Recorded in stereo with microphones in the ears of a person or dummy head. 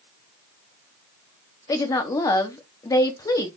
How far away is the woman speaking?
About 0.8 m.